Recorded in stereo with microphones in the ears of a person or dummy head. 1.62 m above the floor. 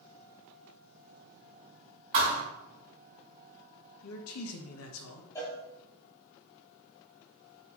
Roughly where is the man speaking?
Left.